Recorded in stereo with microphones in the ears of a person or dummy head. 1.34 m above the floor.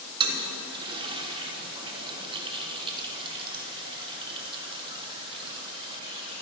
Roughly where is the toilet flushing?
Right.